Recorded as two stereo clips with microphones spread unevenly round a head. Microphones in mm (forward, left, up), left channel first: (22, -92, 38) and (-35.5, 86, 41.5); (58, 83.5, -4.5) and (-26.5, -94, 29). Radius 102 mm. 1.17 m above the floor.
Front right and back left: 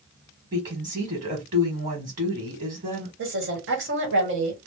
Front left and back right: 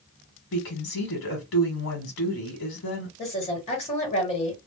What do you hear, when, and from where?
0.5 s a woman speaking: 60° left, 1.2 m
3.2 s a woman speaking: 120° left, 1.5 m